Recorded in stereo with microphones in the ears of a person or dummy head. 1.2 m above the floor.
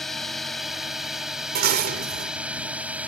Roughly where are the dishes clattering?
Right.